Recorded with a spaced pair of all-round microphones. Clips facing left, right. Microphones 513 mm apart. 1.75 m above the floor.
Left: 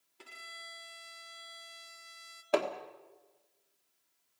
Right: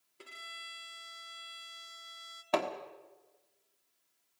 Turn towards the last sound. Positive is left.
turn(degrees=-20)  # may be behind; listen again after turning